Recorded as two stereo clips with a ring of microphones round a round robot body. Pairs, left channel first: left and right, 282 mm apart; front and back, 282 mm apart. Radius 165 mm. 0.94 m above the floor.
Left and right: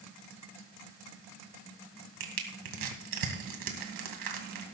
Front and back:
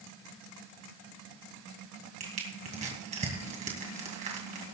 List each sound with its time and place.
2.2 s crushing: 110° right, 2.5 m